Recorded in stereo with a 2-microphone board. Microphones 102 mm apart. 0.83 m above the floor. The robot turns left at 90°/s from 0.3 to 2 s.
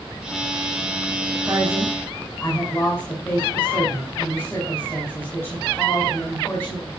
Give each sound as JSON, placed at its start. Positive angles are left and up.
{"t": 1.5, "sound": "a woman speaking", "azimuth_deg": -155, "distance_m": 5.5}